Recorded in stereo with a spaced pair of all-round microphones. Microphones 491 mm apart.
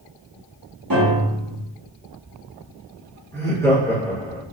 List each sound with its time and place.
0.9 s a piano: 45° right (ahead or behind), 2.5 m
3.3 s laughter: 5° left (ahead or behind), 3.5 m